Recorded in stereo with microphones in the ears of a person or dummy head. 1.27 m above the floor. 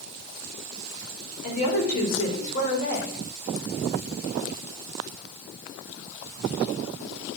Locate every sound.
1.4 s a woman speaking: 45° left (ahead or behind), 4.5 m